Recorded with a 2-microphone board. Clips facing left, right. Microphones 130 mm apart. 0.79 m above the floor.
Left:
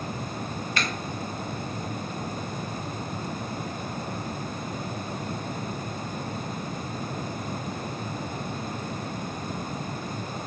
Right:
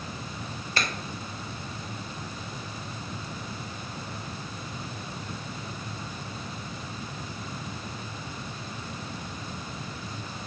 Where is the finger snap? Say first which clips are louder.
Even; 35° right (ahead or behind), 0.6 m.